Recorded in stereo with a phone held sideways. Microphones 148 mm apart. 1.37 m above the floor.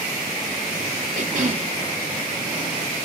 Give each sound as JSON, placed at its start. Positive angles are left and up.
{"t": 1.1, "sound": "a cough", "side_deg": -60}